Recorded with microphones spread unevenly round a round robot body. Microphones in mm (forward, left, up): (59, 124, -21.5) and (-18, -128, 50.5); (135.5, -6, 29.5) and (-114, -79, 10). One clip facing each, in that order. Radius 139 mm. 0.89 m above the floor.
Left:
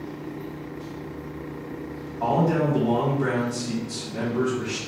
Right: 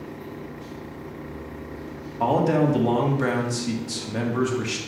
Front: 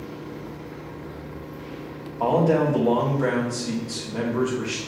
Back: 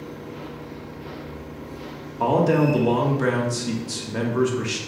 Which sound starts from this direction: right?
A man speaking, at 2.2 s.